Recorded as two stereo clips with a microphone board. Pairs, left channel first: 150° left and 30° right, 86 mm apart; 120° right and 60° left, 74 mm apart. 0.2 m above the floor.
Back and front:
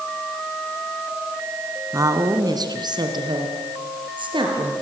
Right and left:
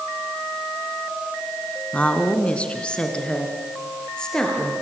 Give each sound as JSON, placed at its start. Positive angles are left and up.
{"t": 1.9, "sound": "a woman speaking", "azimuth_deg": -55, "distance_m": 2.0}